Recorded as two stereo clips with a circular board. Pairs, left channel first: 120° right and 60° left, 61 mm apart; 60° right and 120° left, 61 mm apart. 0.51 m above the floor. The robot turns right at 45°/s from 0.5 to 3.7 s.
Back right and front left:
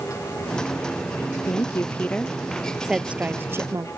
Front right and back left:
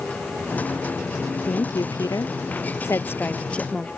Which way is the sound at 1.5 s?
85° right.